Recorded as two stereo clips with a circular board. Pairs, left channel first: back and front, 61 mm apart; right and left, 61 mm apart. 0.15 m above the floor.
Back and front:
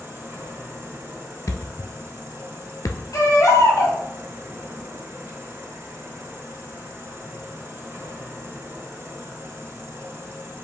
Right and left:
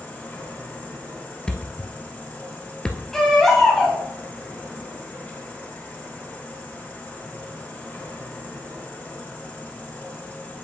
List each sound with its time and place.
0.0 s an insect: 35° right, 3.5 m
1.5 s a thud: 165° right, 0.6 m
3.1 s a baby crying: 175° right, 2 m